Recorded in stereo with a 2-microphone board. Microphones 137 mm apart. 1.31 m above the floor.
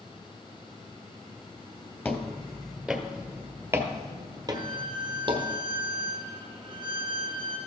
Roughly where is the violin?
Right.